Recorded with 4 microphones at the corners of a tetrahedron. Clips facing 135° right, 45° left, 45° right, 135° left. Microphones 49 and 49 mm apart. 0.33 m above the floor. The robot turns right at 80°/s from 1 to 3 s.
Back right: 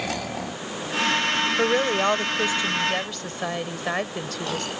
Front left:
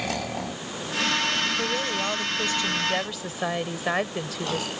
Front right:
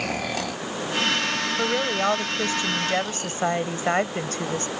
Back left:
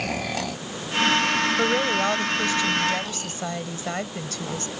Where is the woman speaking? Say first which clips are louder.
Back right 6 dB, back left 2 dB; 150° right; by 4.7 s 40° right.